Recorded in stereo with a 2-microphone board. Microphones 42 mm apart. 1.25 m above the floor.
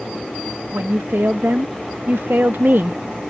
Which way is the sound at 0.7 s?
80° right.